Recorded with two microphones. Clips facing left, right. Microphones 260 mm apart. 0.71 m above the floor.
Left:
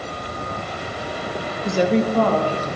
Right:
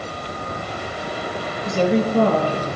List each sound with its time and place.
1.6 s a woman speaking: 25° left (ahead or behind), 0.6 m; by 2.7 s 40° right (ahead or behind), 1.0 m